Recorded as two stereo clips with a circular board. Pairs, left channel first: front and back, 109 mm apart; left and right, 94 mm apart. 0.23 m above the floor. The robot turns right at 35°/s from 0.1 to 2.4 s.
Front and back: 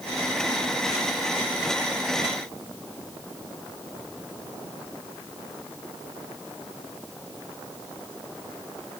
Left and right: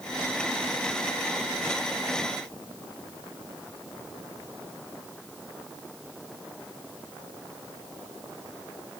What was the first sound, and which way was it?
Only background noise.